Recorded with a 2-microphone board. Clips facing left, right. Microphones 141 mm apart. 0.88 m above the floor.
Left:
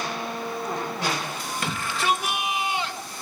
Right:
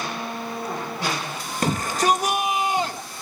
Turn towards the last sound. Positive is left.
turn(degrees=-40)  # may be behind; listen again after turning